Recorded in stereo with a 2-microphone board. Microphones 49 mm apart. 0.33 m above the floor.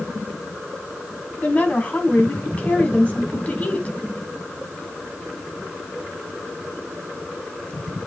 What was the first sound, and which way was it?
A woman speaking, 30° left (ahead or behind).